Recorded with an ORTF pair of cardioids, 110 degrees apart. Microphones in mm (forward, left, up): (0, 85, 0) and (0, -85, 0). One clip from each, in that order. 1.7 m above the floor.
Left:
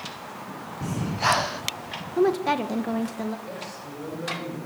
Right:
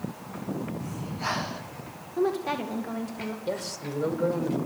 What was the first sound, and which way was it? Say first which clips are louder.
Breathing: left 12 dB; 45° left.